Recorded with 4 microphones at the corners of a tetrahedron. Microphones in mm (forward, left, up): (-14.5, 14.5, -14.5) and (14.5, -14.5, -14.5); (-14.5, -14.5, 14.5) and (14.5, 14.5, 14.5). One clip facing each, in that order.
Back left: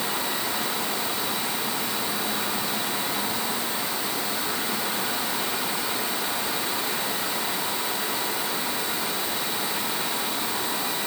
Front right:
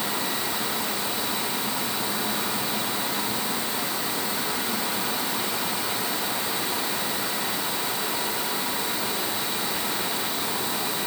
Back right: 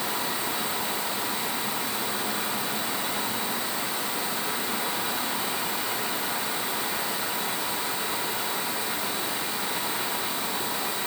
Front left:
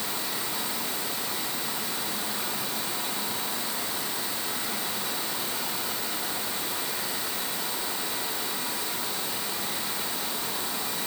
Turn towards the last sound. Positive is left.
No sound to turn to.